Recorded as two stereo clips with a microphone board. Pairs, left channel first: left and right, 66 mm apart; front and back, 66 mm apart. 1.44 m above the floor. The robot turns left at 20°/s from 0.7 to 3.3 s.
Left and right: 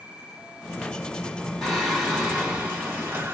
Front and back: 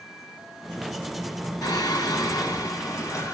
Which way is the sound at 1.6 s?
5° right.